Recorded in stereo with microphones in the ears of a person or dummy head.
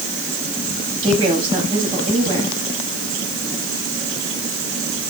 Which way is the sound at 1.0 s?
30° right (ahead or behind).